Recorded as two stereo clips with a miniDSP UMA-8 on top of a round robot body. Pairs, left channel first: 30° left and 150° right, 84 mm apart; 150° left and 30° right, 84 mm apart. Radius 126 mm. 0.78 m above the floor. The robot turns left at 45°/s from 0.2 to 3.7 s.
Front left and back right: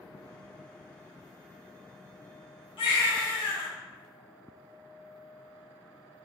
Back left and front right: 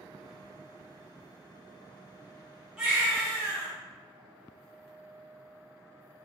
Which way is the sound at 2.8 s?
50° left.